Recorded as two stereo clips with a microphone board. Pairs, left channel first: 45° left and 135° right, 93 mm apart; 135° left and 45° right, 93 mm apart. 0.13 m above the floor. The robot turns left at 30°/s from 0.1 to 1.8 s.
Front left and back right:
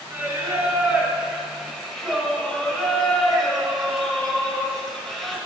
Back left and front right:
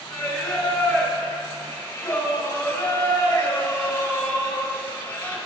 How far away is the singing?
About 1.4 m.